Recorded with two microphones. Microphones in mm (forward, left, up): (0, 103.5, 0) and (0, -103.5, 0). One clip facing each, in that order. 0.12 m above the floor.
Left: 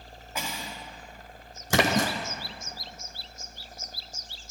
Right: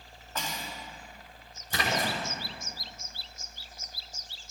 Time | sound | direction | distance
0.3 | cutlery clinking | 10° left (ahead or behind) | 5 m
1.7 | a splash | 80° left | 1.9 m